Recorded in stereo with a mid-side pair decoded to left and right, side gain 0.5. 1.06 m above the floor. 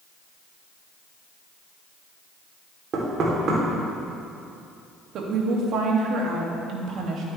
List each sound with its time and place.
2.9 s knocking: 55° right, 3 m
5.1 s a woman speaking: 60° right, 2 m